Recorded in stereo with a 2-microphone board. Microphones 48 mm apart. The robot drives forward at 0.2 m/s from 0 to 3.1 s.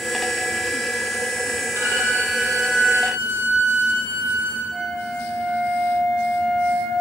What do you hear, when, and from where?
1.8 s a violin: 80° right, 1.3 m; by 4.6 s 70° right (ahead or behind), 1.4 m
4.7 s a flute: 20° left (ahead or behind), 1.6 m